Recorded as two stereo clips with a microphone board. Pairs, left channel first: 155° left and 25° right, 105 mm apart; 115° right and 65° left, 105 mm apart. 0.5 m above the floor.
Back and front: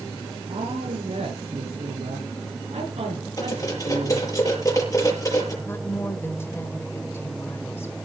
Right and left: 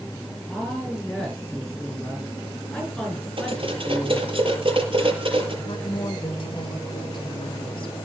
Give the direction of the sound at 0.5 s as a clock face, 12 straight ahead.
1 o'clock.